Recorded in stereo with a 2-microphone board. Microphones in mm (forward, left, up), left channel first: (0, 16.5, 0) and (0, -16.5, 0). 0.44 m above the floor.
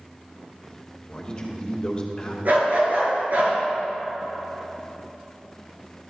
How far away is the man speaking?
About 1.8 m.